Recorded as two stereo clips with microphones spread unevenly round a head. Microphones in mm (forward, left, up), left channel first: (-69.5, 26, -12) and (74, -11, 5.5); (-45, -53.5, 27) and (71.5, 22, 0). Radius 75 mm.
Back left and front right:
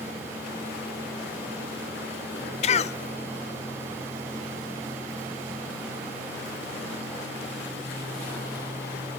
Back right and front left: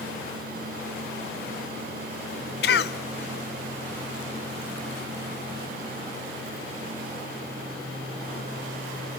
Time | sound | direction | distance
2.6 | a cough | 145° right | 1.1 m